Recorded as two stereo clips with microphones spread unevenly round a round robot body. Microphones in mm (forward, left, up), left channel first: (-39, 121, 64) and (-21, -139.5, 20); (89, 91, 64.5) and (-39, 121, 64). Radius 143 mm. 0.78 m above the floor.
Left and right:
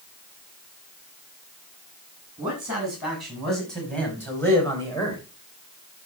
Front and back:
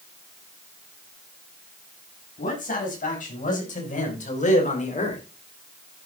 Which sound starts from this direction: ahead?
A man speaking, at 2.4 s.